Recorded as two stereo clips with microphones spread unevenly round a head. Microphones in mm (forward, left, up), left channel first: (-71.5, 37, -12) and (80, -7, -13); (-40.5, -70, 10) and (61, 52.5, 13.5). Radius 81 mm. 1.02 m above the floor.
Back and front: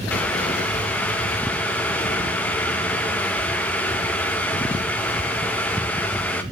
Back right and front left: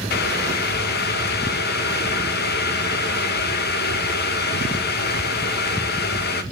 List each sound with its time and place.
0.1 s boiling: 115° right, 0.9 m